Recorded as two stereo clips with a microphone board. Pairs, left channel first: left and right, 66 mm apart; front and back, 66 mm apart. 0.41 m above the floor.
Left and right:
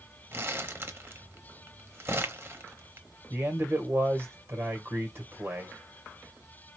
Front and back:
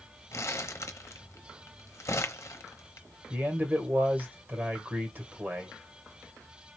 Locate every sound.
0.3 s crumpling: 40° right, 0.9 m
3.3 s a man speaking: 125° right, 2 m